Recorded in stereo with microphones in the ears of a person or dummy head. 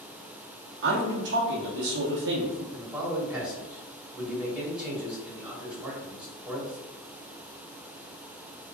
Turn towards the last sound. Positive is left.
turn(degrees=0)  # may be behind; listen again after turning